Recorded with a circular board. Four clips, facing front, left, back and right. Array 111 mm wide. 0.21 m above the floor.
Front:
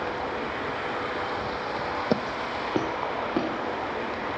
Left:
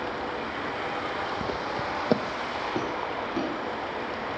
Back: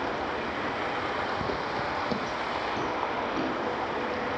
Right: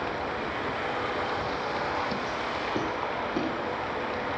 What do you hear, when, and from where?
1.4 s footsteps: 130° left, 1.1 m; by 3.5 s 15° right, 2 m